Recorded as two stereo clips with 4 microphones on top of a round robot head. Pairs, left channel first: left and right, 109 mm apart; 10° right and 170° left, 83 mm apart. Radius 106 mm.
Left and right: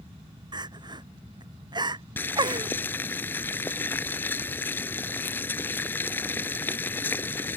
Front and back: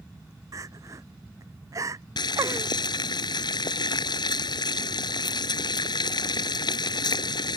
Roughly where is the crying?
Behind right.